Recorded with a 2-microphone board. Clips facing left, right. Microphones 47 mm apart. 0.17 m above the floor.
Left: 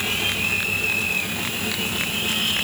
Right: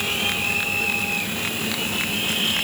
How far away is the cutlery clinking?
I don't hear cutlery clinking.